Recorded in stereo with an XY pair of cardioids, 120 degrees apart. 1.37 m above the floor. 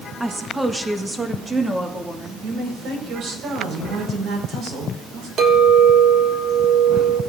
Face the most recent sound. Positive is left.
turn(degrees=-55)